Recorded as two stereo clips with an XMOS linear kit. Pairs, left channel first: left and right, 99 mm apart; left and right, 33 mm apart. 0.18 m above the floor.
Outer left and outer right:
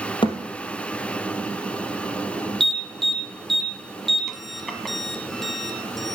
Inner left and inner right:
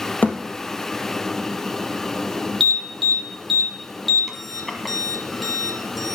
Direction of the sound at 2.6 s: Centre (ahead or behind).